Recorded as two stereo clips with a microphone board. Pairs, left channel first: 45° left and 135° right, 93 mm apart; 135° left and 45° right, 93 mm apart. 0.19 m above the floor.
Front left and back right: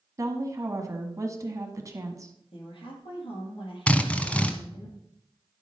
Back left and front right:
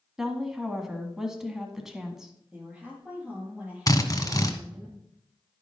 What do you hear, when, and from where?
0.2 s a woman speaking: 125° right, 1.6 m
2.5 s a woman speaking: 30° left, 4.5 m
3.9 s a drill: 115° left, 1.1 m